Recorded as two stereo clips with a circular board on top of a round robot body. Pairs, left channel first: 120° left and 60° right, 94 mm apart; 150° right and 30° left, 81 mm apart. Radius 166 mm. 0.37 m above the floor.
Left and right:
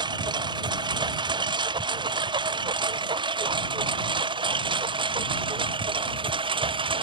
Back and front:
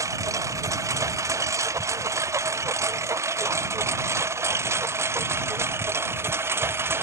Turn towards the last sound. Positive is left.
turn(degrees=-30)